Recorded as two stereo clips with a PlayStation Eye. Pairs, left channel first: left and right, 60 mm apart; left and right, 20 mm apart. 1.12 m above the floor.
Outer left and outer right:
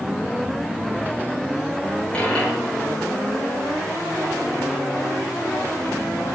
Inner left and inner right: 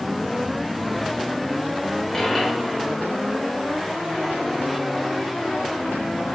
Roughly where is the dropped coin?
Centre.